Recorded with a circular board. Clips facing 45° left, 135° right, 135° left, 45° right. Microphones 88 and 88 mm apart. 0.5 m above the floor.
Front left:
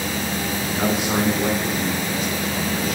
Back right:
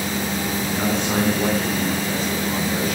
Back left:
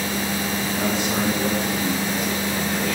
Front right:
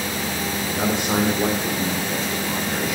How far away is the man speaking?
About 1.5 m.